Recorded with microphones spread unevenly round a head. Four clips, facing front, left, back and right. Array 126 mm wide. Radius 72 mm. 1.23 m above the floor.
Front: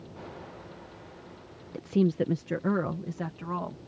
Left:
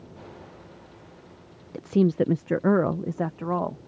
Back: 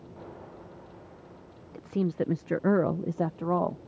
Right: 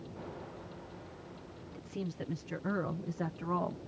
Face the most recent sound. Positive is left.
turn(degrees=150)